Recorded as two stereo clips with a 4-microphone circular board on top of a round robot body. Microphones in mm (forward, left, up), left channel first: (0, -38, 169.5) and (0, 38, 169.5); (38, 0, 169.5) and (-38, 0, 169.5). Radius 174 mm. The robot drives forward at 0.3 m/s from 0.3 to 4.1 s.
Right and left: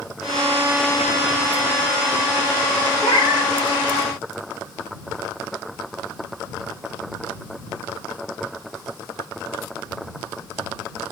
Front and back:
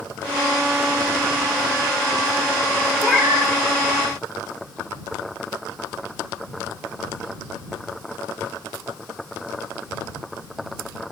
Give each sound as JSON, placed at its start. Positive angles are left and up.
{"t": 3.0, "sound": "a cat meowing", "azimuth_deg": -90, "distance_m": 1.0}